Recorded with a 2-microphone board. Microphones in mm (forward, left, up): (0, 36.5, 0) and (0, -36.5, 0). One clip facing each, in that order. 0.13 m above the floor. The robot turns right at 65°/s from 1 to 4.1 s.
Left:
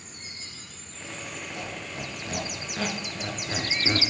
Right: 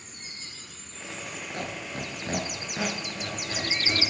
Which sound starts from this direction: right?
A squeak, at 1.5 s.